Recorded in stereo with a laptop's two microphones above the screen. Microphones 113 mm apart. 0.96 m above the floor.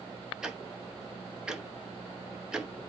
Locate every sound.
0.4 s ticking: 5° right (ahead or behind), 1.2 m